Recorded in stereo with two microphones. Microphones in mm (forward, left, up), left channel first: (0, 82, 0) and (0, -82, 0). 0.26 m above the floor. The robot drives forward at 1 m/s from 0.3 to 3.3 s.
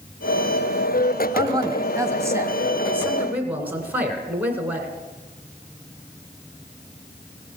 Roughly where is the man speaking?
Right.